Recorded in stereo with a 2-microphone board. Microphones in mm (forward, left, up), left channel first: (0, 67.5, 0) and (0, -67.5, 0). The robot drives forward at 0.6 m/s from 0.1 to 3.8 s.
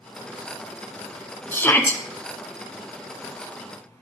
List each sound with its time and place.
1.5 s a shout: 15° left (ahead or behind), 1.6 m